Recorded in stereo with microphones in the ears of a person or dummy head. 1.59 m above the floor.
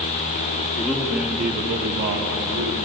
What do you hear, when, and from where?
0.8 s a man speaking: 10° left (ahead or behind), 1.2 m; by 2.8 s 60° right (ahead or behind), 2 m